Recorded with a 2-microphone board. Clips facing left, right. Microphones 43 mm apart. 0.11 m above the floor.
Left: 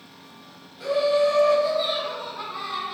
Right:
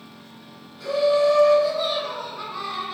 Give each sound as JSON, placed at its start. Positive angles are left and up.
{"t": 0.8, "sound": "laughter", "side_deg": 30, "distance_m": 2.0}